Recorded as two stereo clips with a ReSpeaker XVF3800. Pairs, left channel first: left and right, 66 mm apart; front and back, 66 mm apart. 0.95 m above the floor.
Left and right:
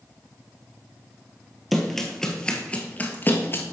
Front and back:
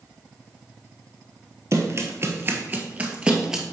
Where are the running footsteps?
Straight behind, 1.2 m; by 3.6 s 105° left, 1.1 m.